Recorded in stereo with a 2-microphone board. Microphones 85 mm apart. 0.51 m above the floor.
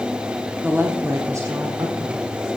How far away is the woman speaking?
About 1.1 m.